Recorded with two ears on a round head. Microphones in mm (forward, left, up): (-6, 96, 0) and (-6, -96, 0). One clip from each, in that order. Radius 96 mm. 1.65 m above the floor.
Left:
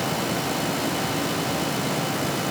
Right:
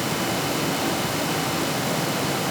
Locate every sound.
Only background noise.